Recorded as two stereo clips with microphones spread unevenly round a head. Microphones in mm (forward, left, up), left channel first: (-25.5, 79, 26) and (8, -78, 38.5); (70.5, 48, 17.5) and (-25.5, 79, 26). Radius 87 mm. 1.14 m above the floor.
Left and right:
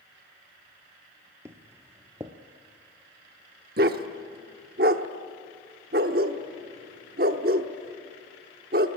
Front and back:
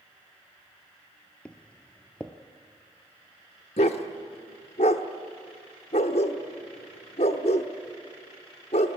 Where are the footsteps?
95° right, 1.1 m.